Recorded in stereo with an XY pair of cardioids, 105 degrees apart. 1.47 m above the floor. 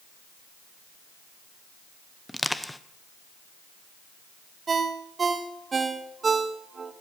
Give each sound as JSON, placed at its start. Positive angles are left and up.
{"t": 2.3, "sound": "crushing", "azimuth_deg": 10, "distance_m": 0.8}
{"t": 4.7, "sound": "a ringtone", "azimuth_deg": -35, "distance_m": 1.3}